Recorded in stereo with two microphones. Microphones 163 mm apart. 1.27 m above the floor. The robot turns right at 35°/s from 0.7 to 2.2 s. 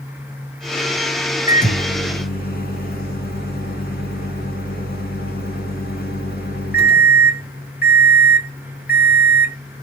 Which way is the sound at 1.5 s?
50° left (ahead or behind).